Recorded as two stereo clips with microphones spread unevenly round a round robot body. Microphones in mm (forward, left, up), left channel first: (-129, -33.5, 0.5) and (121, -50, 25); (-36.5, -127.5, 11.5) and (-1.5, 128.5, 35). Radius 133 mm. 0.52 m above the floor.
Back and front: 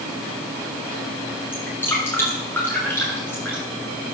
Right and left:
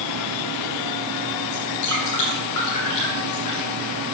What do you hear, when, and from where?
1.5 s dripping: 105° right, 8 m